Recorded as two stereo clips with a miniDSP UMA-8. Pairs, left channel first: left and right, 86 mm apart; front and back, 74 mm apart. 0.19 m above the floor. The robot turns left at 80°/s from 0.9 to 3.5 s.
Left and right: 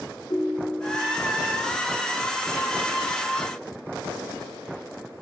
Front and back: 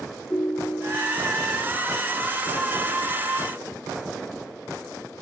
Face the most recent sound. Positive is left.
turn(degrees=-135)